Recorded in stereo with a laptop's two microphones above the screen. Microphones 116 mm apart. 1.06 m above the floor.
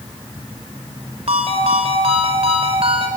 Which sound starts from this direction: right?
A ringtone, at 1.3 s.